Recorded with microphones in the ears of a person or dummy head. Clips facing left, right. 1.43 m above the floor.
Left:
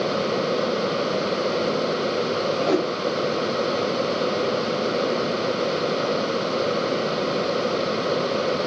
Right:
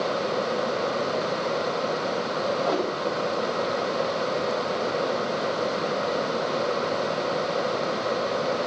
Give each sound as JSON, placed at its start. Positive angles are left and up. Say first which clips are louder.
{"t": 2.6, "sound": "a whoosh", "louder": "left 6 dB", "side_deg": 25, "distance_m": 1.1}